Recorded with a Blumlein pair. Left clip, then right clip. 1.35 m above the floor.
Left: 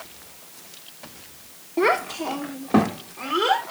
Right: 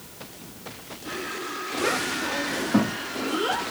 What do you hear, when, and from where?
1.8 s a child speaking: 55° left, 0.9 m; by 3.6 s 70° left, 2.5 m